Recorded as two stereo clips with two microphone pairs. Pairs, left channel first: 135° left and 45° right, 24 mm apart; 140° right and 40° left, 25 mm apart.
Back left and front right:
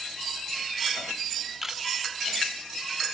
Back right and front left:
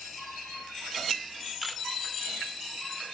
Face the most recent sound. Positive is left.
turn(degrees=-60)